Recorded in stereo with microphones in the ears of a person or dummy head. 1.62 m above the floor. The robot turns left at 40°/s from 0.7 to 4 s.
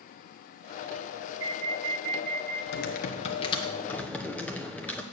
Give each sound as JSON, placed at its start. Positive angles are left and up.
{"t": 1.4, "sound": "an alarm", "azimuth_deg": -90, "distance_m": 4.0}
{"t": 2.7, "sound": "typing on a keyboard", "azimuth_deg": 55, "distance_m": 1.1}